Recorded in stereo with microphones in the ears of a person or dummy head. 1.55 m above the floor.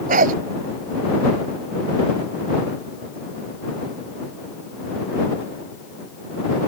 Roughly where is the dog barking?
Right.